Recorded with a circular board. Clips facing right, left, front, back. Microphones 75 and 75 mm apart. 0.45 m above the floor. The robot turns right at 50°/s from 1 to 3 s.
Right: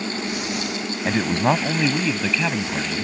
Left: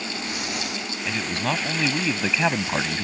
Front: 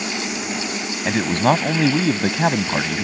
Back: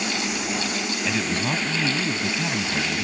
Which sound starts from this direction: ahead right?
A man speaking, at 1.1 s.